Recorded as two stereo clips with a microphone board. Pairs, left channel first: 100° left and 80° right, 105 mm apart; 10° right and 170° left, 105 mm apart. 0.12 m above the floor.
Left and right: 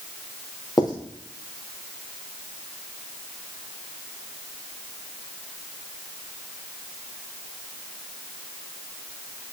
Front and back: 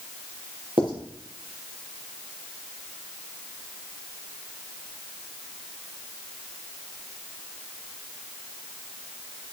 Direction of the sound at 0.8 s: 145° left.